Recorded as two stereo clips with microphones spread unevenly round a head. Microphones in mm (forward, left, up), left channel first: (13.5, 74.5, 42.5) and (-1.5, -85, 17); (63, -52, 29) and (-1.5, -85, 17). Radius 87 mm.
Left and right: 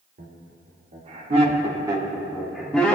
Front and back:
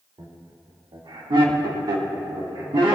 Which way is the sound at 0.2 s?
130° right.